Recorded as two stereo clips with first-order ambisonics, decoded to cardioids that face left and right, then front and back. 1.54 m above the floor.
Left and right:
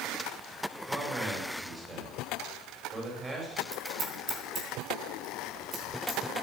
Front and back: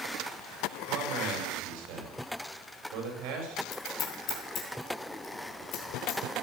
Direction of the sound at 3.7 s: 45° right.